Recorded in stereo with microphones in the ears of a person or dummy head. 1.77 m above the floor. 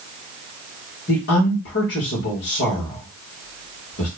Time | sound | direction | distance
1.1 | a woman speaking | 55° left (ahead or behind) | 1.6 m